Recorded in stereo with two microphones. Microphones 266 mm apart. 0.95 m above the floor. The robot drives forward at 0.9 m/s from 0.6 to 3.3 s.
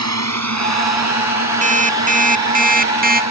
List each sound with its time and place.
0.0 s a drone: 80° right; by 3.3 s 75° right (ahead or behind)
1.6 s an alarm clock: 30° right (ahead or behind); by 3.2 s 35° right (ahead or behind)